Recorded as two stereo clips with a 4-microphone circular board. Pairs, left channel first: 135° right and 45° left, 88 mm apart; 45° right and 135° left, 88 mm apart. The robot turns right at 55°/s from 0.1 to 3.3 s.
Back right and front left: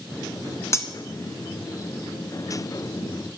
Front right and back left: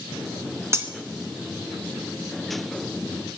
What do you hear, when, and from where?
0.7 s cutlery clinking: straight behind, 1.2 m; by 0.9 s 170° right, 1.2 m